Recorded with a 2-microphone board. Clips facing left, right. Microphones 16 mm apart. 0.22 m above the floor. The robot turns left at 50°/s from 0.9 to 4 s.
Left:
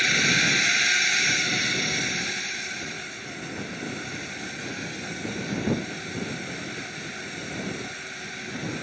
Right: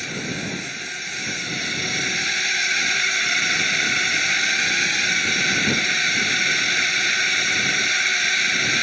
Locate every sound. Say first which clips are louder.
0.0 s a drone: left 7 dB; 30° left (ahead or behind); by 8.8 s 60° right (ahead or behind)